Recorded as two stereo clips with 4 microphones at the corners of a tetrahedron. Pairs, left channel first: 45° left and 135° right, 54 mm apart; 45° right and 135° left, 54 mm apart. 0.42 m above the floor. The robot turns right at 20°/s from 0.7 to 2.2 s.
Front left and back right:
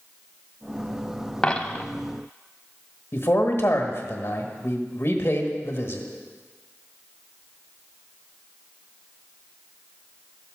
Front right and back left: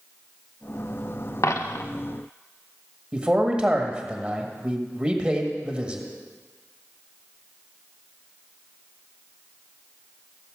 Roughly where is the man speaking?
Left.